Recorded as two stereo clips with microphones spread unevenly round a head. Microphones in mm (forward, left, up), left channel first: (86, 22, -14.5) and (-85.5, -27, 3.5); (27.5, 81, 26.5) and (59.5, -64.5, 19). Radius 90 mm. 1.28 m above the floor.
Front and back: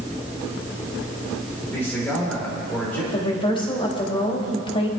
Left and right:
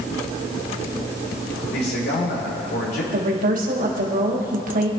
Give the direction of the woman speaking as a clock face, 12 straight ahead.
2 o'clock.